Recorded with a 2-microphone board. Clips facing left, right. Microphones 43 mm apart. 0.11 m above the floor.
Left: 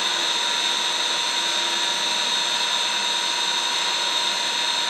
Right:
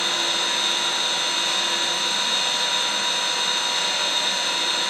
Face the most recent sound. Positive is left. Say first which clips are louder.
# even
turn(degrees=-55)  # may be behind; listen again after turning